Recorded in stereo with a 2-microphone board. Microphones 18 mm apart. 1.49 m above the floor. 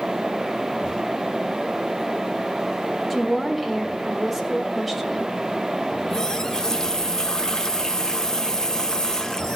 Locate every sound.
3.1 s a woman speaking: centre (ahead or behind), 2.5 m
5.9 s a running tap: 30° left (ahead or behind), 0.8 m